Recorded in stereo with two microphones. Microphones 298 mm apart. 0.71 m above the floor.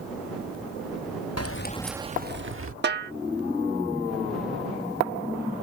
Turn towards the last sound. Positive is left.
turn(degrees=-40)  # may be behind; listen again after turning